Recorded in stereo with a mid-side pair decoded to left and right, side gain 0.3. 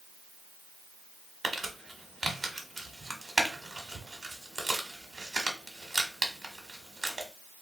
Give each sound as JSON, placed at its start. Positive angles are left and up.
{"t": 1.4, "sound": "crumpling", "azimuth_deg": -45, "distance_m": 1.1}